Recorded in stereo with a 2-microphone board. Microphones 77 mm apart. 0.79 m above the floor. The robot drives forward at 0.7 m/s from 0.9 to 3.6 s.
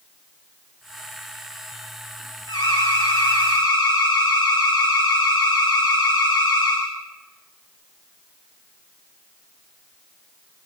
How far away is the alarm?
About 10 m.